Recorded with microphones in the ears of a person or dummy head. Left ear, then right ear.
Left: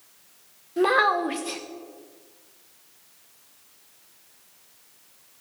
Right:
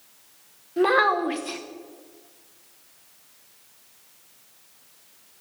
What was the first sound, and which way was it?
A child speaking, 5° right (ahead or behind).